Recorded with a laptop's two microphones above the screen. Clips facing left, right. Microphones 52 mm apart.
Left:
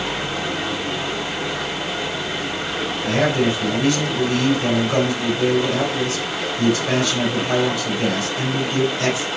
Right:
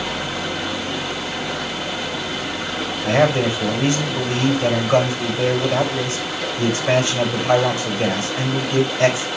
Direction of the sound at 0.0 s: Centre (ahead or behind).